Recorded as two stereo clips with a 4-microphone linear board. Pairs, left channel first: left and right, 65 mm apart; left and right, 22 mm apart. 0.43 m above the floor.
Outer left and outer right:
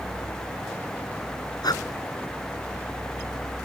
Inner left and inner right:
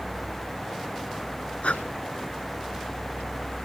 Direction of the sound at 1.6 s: 80° left.